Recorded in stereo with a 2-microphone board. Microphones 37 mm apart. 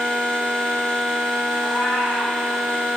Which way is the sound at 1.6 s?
70° left (ahead or behind).